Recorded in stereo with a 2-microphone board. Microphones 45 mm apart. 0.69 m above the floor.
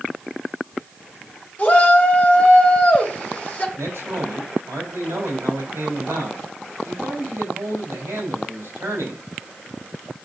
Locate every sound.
1.6 s a shout: 30° left (ahead or behind), 2 m
3.8 s a man speaking: 65° right (ahead or behind), 4.5 m